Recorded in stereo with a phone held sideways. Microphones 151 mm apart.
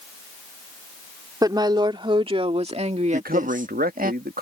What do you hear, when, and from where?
1.4 s a woman speaking: 25° right (ahead or behind); by 4.1 s 70° right (ahead or behind)
3.1 s a man speaking: 80° right